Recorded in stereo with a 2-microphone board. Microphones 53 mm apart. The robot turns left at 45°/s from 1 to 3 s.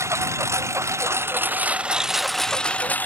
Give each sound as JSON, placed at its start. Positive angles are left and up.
{"t": 0.0, "sound": "a lawn mower", "azimuth_deg": -125}